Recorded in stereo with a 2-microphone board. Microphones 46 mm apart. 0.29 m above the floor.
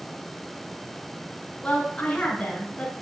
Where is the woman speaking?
25° left (ahead or behind), 2.5 m.